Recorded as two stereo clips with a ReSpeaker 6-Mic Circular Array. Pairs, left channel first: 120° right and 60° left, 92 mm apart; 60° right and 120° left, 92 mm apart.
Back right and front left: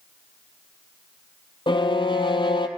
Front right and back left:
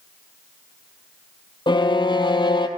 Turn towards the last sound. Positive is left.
turn(degrees=-90)